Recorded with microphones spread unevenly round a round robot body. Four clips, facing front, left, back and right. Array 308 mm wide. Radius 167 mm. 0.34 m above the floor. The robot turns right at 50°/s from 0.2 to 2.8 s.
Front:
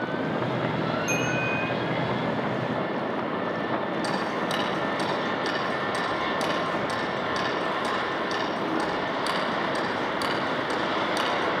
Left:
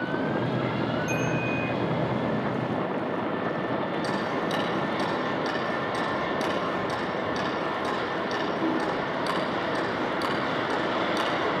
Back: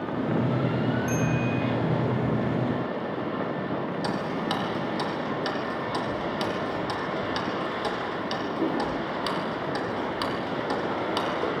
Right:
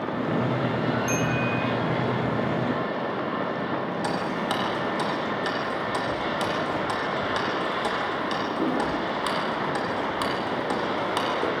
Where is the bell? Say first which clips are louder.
Right 2 dB, even; 95° right, 5.5 m; by 1.7 s 65° right, 5.5 m.